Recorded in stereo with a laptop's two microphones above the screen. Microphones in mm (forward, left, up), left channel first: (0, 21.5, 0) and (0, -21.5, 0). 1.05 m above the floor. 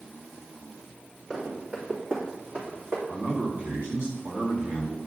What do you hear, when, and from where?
1.3 s running footsteps: 30° right (ahead or behind), 3.5 m; by 3.0 s 70° right (ahead or behind), 3 m
3.1 s a man speaking: 65° right (ahead or behind), 3 m